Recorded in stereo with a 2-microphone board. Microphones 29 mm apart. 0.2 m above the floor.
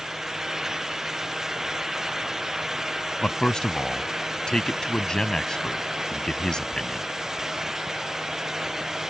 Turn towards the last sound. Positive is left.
turn(degrees=25)  # may be behind; listen again after turning